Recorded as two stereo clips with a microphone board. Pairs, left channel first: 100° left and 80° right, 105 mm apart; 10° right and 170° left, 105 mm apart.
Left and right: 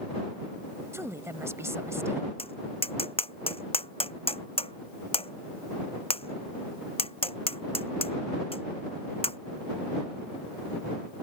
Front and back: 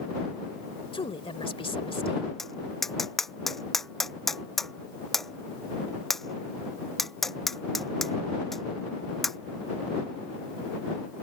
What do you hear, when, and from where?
0.9 s a woman speaking: 20° right
2.4 s tapping: 75° left